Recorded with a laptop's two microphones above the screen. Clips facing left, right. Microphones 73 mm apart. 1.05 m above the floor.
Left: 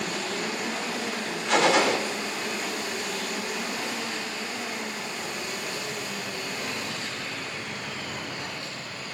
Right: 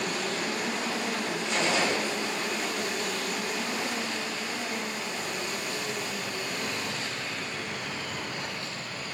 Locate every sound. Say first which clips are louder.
1.5 s a gunshot: left 7 dB; 80° left, 3.5 m